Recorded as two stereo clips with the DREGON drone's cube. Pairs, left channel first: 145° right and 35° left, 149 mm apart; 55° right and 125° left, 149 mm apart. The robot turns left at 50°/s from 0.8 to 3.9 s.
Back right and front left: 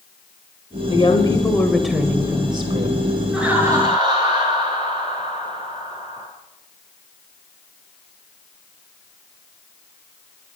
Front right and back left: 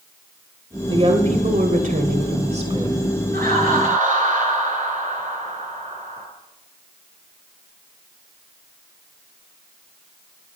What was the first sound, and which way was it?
A woman speaking, 170° left.